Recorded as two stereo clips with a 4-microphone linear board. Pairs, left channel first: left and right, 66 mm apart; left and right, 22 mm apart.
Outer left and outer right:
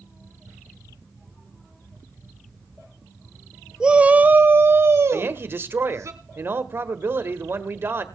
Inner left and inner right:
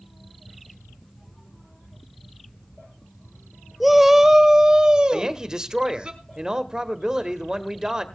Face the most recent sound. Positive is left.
turn(degrees=-35)  # may be behind; listen again after turning